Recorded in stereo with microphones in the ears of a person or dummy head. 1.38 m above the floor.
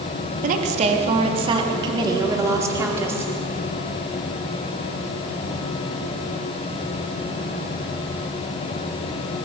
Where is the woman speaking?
45° right (ahead or behind), 3 m; by 3.3 s 10° right (ahead or behind), 5 m.